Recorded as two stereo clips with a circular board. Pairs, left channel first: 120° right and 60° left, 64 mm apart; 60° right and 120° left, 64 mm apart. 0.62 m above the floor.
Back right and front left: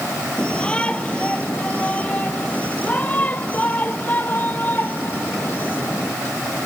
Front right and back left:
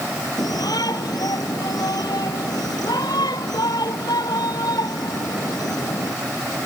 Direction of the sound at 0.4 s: 45° right.